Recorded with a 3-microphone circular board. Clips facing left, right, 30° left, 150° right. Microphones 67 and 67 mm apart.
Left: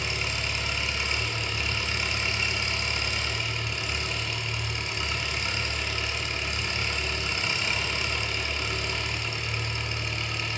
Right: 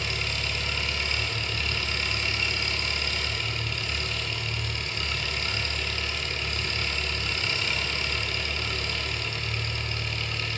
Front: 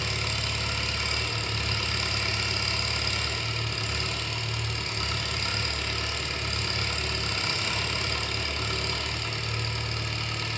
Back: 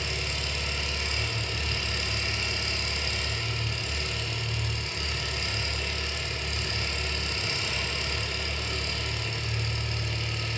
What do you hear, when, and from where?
0.0 s an engine running: 15° left, 1.4 m